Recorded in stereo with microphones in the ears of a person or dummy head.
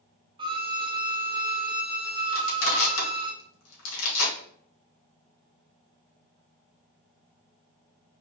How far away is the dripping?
No dripping in this recording.